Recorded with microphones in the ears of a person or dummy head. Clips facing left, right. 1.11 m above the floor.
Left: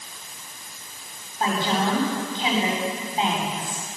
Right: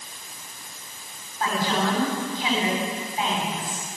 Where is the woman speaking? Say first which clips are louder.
Left 1 dB; 20° left (ahead or behind), 8.5 m.